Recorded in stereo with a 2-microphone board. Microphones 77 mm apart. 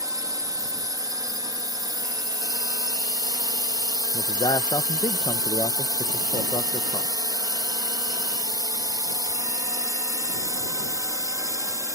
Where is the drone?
50° right (ahead or behind); by 12.0 s 45° right (ahead or behind).